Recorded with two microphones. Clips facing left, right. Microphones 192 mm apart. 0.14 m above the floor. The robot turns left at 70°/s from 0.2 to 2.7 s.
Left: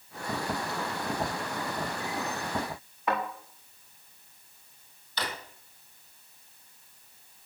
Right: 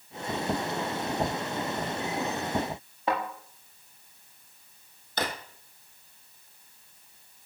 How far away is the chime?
No chime in this recording.